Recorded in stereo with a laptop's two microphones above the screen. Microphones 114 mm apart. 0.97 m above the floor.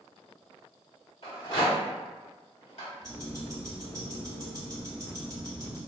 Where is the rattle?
55° left (ahead or behind), 1.4 m.